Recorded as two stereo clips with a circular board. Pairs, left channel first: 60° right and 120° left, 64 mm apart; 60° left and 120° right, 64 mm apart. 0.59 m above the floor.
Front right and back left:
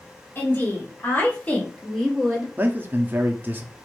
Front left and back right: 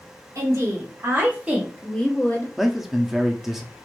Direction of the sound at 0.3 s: 105° right.